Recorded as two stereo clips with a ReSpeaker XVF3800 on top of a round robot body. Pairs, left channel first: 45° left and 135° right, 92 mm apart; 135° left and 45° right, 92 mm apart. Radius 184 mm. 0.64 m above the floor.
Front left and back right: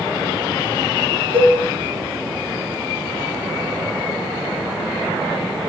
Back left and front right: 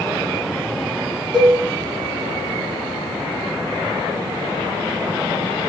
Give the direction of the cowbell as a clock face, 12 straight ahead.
4 o'clock.